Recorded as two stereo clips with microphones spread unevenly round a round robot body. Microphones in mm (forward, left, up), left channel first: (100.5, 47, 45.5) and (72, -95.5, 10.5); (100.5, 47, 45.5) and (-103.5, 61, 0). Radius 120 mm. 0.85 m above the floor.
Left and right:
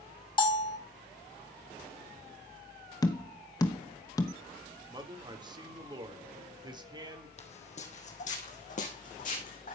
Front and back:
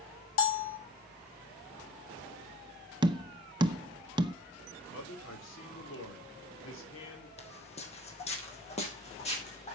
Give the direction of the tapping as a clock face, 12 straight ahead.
7 o'clock.